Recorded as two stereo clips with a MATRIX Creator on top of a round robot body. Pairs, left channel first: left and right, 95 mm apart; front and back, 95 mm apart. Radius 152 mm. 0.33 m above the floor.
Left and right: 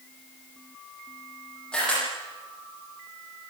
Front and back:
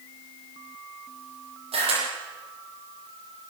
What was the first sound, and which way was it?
A camera shutter, 170° left.